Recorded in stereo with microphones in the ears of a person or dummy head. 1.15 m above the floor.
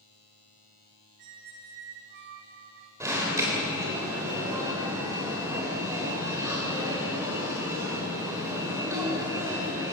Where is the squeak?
65° right (ahead or behind), 2 m.